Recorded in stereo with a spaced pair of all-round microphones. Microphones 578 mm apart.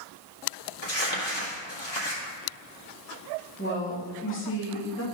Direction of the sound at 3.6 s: 20° left (ahead or behind).